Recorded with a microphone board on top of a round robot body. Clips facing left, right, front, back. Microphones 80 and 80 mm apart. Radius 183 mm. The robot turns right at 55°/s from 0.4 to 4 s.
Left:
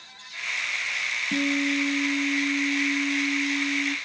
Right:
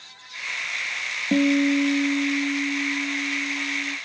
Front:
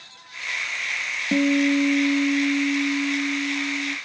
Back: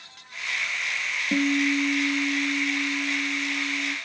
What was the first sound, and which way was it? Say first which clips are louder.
A guitar: right 7 dB, front 4 dB; 75° right.